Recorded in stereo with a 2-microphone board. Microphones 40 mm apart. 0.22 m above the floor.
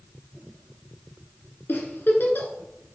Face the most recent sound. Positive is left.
turn(degrees=60)  # may be behind; listen again after turning